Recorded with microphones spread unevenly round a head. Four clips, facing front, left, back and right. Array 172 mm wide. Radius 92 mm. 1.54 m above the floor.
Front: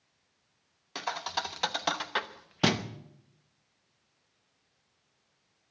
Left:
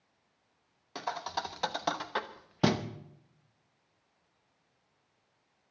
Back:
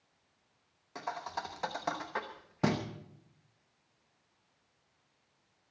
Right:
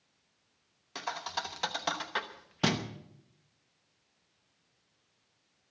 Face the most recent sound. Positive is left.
turn(degrees=60)